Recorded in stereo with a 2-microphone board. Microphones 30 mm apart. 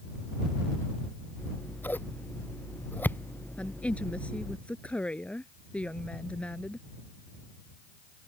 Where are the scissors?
70° left (ahead or behind).